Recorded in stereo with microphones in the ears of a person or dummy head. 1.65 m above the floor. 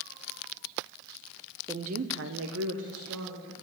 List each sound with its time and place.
1.7 s a woman speaking: 20° right (ahead or behind), 0.6 m; by 3.5 s 80° right, 2.5 m